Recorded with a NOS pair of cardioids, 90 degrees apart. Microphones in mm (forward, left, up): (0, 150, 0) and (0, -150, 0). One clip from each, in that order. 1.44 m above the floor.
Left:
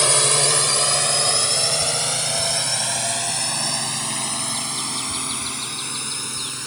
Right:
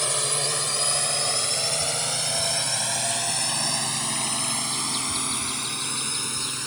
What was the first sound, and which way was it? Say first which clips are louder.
A drone: left 8 dB; 55° left.